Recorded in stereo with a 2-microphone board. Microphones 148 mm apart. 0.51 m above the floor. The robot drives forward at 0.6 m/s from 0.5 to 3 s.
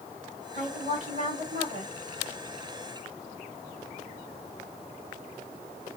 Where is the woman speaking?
55° right (ahead or behind), 3 m; by 1.9 s 60° right (ahead or behind), 2.5 m.